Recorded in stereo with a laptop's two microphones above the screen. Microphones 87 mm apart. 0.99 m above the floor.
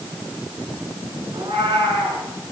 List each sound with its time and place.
1.3 s a cat meowing: 65° right (ahead or behind), 7 m